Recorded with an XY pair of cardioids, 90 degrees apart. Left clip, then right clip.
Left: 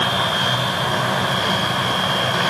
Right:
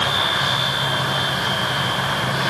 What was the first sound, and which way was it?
Only background noise.